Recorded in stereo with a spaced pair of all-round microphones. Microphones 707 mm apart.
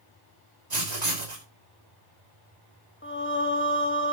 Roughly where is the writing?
Right.